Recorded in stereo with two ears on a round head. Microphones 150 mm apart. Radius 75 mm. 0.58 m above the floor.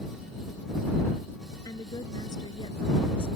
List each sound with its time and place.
1.6 s a woman speaking: 20° left (ahead or behind); by 3.3 s 30° left (ahead or behind)